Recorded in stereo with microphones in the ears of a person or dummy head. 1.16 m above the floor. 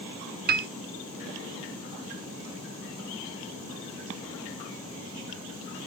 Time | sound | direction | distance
0.5 | a piano | 40° right (ahead or behind) | 0.5 m